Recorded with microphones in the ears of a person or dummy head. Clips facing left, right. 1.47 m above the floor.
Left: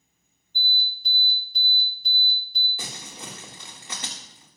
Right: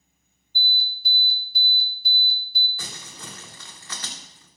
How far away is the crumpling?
About 2.0 m.